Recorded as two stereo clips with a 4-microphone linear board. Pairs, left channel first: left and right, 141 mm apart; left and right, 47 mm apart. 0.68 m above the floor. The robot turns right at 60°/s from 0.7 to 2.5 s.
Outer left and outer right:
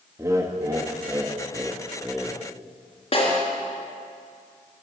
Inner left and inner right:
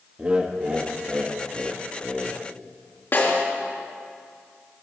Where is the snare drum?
50° left (ahead or behind), 4 m.